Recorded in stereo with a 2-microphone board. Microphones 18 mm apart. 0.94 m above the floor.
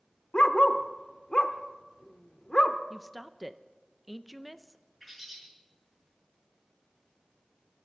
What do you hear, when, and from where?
0.3 s a dog barking: 50° left (ahead or behind), 0.8 m
2.9 s a woman speaking: centre (ahead or behind), 0.6 m
5.0 s a bird: centre (ahead or behind), 6.5 m